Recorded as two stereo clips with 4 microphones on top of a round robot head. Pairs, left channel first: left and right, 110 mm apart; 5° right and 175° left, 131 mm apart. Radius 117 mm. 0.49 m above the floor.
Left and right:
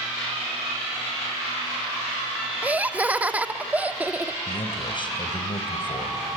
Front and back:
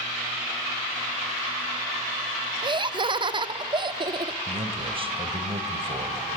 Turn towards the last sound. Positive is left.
turn(degrees=130)